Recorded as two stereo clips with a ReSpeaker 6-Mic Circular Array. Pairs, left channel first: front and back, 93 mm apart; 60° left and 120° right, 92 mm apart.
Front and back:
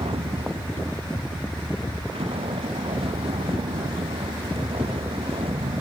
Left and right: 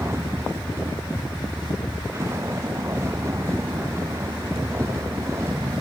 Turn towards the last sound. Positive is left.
turn(degrees=180)